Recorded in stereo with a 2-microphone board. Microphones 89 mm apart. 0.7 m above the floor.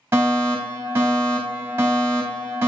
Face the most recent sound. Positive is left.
turn(degrees=-25)  # may be behind; listen again after turning